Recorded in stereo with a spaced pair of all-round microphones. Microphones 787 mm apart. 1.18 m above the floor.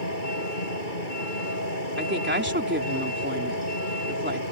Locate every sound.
0.0 s a vehicle: 85° left
2.0 s a woman speaking: 15° right (ahead or behind)